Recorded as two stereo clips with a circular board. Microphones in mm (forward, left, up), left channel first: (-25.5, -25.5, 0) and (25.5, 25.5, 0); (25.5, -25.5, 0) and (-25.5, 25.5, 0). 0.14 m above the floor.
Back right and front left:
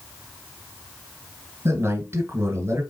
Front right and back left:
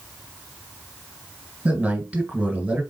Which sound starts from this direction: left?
A man speaking, at 1.6 s.